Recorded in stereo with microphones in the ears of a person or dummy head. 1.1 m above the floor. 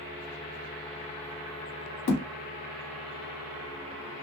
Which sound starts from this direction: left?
A thud, at 2.1 s.